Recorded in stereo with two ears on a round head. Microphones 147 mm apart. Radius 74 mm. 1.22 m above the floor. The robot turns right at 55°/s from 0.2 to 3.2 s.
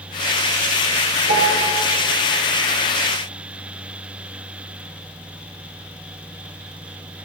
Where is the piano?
70° right (ahead or behind), 3 m; by 1.8 s 80° right, 3 m.